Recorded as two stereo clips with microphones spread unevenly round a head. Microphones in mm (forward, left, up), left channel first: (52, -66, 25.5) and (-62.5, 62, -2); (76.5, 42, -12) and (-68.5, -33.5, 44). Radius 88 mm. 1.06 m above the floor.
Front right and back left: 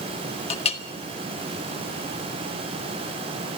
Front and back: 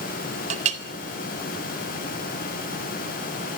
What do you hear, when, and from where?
0.5 s a clink: 100° right, 1.7 m